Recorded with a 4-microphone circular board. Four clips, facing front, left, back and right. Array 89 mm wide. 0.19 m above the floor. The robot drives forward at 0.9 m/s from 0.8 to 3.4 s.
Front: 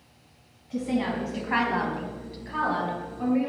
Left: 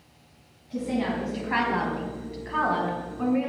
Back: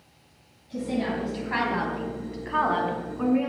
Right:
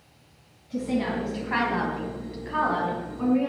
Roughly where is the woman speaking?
Ahead.